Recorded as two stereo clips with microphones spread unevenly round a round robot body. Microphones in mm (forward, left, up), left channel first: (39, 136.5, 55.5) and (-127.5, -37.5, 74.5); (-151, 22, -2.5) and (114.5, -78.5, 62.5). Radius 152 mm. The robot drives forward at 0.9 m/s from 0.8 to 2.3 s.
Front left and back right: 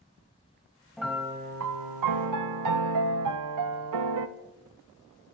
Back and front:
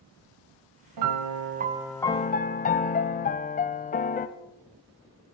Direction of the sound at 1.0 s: 40° right.